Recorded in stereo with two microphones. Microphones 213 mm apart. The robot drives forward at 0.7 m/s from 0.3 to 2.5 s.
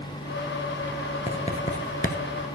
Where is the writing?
25° left (ahead or behind), 1.2 m; by 2.2 s 45° left (ahead or behind), 0.8 m.